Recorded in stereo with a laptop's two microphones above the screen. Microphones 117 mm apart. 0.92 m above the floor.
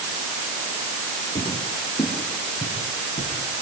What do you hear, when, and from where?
1.4 s footsteps: 75° left (ahead or behind), 5.5 m; by 3.6 s 70° left (ahead or behind), 6.5 m